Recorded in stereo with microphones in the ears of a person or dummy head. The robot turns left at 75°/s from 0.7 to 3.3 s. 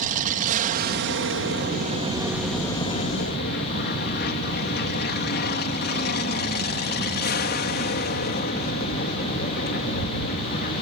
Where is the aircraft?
45° right (ahead or behind); by 10.8 s 45° left (ahead or behind).